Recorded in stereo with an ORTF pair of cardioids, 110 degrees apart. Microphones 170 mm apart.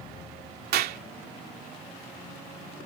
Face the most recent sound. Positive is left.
turn(degrees=-70)